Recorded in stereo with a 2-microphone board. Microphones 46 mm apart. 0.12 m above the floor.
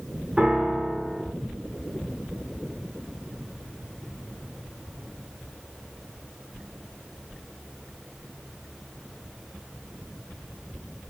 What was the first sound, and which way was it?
A piano, 20° right (ahead or behind).